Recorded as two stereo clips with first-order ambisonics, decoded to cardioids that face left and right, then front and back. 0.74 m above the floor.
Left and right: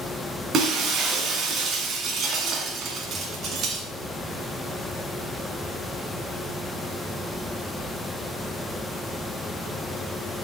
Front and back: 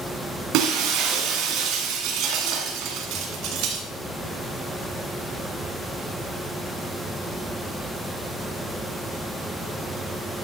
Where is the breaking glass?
150° right, 2 m.